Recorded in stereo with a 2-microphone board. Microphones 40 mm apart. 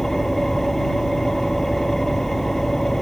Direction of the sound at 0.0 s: 5° left (ahead or behind).